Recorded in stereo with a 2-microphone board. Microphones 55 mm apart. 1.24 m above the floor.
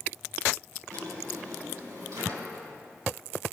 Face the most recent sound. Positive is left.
turn(degrees=-80)